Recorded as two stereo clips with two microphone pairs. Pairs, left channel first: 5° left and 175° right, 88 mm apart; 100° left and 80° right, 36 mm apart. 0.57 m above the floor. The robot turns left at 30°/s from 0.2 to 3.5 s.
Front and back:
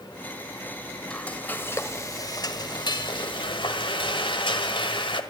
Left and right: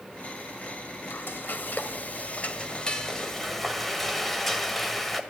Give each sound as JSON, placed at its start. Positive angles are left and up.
{"t": 1.1, "sound": "frying", "azimuth_deg": 85, "distance_m": 1.7}